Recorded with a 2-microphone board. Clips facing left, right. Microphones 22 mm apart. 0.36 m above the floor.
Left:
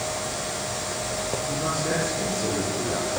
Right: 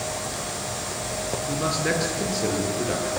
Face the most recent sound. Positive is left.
turn(degrees=-75)  # may be behind; listen again after turning